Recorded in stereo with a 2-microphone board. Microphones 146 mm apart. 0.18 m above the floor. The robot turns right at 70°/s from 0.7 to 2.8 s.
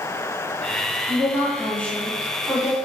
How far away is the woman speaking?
About 1.4 m.